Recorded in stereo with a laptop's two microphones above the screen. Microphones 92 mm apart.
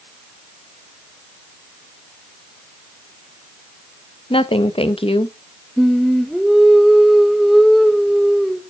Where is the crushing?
No crushing in this recording.